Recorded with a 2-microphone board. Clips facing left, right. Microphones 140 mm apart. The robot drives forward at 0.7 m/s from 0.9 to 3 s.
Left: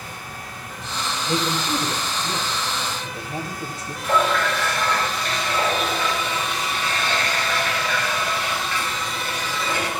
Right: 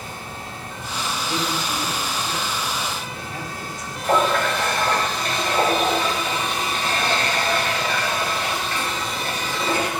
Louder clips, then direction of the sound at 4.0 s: Right 1 dB; 45° right (ahead or behind).